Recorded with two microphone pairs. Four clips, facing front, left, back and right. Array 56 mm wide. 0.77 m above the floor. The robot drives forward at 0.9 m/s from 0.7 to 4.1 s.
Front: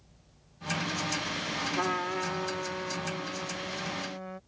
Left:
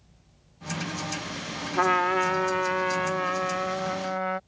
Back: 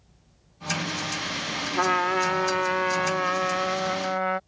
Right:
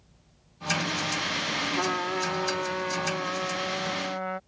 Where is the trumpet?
115° left; by 4.4 s 155° left.